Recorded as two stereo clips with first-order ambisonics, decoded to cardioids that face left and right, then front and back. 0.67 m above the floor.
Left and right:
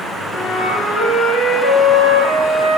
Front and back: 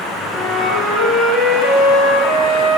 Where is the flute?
45° left, 4 m.